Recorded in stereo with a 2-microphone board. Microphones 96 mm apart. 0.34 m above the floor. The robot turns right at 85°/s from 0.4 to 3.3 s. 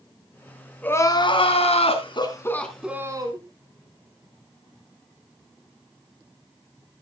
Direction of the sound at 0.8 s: 15° left.